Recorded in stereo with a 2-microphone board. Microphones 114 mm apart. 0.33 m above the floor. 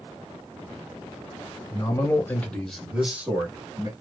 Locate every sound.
1.7 s a man speaking: 30° left (ahead or behind), 1.3 m; by 3.9 s 30° right (ahead or behind), 1.5 m